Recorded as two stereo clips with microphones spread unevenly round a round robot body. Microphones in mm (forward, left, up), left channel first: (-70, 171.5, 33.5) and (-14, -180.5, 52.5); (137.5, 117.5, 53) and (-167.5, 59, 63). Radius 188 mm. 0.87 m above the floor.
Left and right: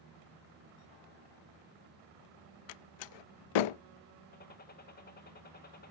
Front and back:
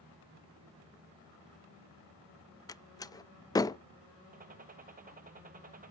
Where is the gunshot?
140° left, 1.0 m.